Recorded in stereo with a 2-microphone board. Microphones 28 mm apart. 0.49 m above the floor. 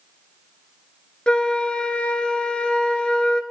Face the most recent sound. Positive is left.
turn(degrees=35)  # may be behind; listen again after turning